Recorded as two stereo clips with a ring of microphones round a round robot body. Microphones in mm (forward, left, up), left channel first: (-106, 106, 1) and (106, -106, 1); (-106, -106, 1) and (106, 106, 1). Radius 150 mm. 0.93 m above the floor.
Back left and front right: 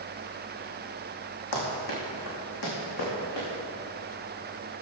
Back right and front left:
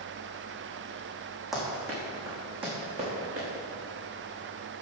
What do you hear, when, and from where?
1.5 s running footsteps: 135° left, 3 m; by 3.5 s 110° left, 4.5 m